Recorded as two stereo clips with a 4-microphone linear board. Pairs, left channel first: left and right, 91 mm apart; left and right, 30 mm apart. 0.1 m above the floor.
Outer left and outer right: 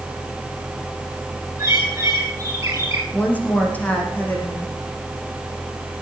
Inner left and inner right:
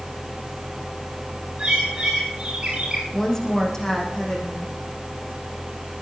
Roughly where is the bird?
Right.